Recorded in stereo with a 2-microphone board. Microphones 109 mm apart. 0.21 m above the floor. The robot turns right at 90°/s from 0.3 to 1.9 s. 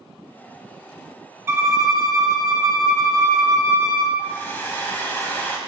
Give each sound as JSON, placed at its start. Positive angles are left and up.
{"t": 1.5, "sound": "a violin", "side_deg": -20, "distance_m": 0.9}
{"t": 4.2, "sound": "a hair dryer", "side_deg": 20, "distance_m": 1.3}